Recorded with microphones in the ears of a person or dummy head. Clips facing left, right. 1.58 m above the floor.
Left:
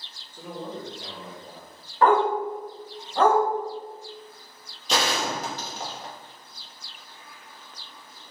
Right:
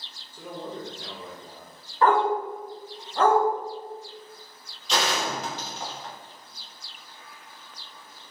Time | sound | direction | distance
0.3 | a man speaking | 10° left (ahead or behind) | 0.5 m
2.0 | a dog barking | 45° left (ahead or behind) | 1.3 m
4.9 | a gunshot | 45° left (ahead or behind) | 0.8 m